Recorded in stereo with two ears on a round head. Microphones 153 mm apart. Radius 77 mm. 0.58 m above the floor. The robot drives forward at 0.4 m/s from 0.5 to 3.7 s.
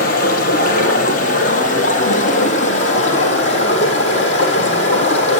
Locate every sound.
0.0 s running water: 55° left (ahead or behind), 3.5 m; by 5.4 s 40° left (ahead or behind), 4.5 m